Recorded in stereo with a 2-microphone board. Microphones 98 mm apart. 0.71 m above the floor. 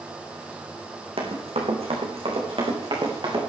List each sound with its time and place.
1.2 s running footsteps: 80° right, 3 m; by 3.4 s 50° right (ahead or behind), 5 m